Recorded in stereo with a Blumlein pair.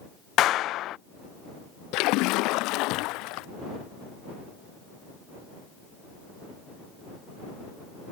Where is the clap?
35° left.